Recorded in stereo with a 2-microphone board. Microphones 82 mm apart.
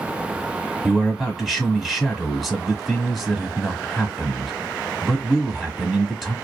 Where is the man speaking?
5° right (ahead or behind), 1.2 m.